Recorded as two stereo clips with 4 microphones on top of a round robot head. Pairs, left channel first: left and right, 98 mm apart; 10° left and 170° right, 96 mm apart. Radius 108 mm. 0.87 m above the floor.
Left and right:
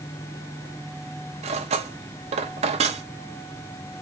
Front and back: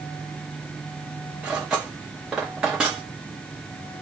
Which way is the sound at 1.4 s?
90° right.